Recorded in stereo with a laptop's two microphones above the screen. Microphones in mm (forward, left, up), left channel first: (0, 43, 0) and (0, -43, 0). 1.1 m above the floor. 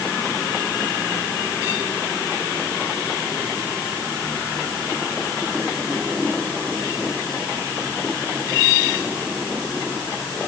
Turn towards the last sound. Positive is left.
No sound to turn to.